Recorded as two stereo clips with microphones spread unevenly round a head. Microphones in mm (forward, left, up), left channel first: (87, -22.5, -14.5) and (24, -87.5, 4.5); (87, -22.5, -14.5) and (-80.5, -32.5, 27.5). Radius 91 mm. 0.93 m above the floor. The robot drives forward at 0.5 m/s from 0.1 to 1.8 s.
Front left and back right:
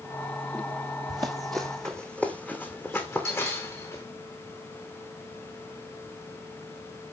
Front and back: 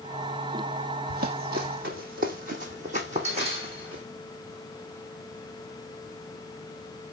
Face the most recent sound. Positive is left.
turn(degrees=125)